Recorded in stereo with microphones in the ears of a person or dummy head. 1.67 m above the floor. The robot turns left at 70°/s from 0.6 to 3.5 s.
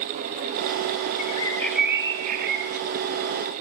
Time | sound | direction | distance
1.2 | a bird | 40° left | 0.7 m